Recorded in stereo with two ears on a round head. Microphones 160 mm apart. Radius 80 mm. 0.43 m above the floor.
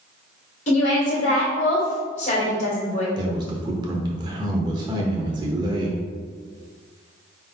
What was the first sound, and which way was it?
A woman speaking, 40° left (ahead or behind).